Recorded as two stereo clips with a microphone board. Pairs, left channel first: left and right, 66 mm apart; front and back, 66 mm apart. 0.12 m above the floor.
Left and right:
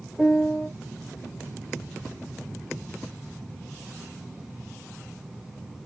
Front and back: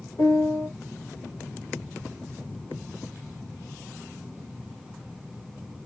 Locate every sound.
0.2 s a piano: 20° right, 3 m